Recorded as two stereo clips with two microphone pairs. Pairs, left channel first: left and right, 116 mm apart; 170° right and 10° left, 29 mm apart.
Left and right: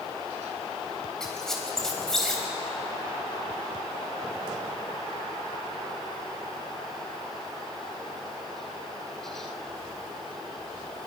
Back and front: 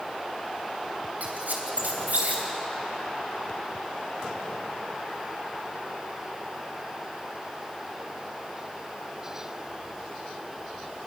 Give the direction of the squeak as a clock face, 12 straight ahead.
12 o'clock.